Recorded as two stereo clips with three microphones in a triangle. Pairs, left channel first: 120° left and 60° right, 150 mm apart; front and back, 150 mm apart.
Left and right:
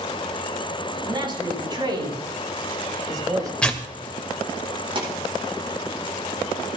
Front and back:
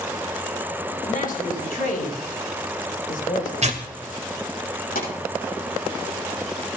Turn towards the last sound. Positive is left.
turn(degrees=-5)